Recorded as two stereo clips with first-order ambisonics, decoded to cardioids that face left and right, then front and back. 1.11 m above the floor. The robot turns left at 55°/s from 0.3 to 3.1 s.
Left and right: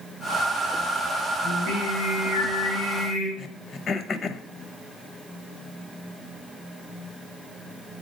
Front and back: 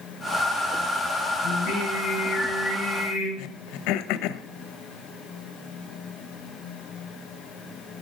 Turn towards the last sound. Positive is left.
turn(degrees=25)